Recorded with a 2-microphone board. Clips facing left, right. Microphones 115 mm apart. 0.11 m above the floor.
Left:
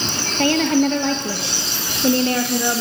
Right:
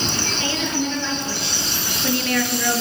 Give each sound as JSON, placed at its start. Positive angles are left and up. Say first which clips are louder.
{"t": 0.4, "sound": "a woman speaking", "louder": "left 10 dB", "side_deg": 60, "distance_m": 2.5}